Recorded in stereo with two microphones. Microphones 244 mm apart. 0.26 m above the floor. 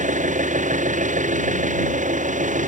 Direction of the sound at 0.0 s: 30° right (ahead or behind).